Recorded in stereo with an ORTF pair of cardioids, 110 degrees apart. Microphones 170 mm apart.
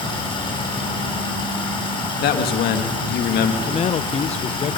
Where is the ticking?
I don't hear ticking.